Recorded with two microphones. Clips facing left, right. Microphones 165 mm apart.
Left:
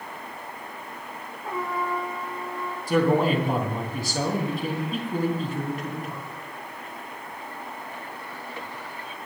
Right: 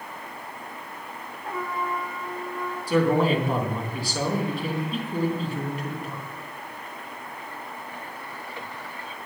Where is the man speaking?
45° left (ahead or behind), 3 m.